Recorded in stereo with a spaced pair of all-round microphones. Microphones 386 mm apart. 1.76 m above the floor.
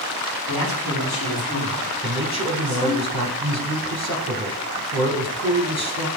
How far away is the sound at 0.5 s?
About 3.5 m.